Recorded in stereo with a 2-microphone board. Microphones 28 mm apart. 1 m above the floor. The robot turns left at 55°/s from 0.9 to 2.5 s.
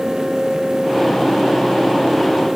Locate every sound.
Only background noise.